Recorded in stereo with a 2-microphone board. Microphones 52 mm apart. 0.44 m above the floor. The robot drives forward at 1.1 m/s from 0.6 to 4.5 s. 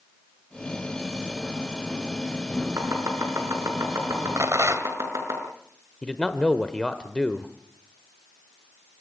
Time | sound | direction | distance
2.8 | chopping | 80° right | 6 m
4.4 | a rattle | 65° right (ahead or behind) | 1.8 m
6.0 | a man speaking | 15° left (ahead or behind) | 1.1 m